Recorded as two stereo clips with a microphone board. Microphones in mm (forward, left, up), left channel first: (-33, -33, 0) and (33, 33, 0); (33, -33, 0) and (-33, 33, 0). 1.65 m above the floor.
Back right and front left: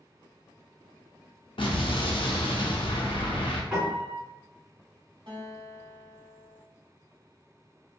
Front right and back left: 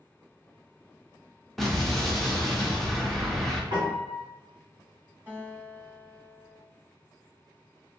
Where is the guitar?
70° left, 1.2 m.